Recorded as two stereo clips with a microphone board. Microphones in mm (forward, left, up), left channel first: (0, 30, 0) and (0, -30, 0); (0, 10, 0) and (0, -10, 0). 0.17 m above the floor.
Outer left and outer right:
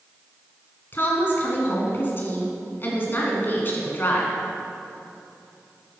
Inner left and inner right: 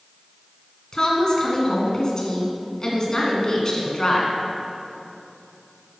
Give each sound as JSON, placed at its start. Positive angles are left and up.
{"t": 0.9, "sound": "a woman speaking", "side_deg": 40, "distance_m": 1.6}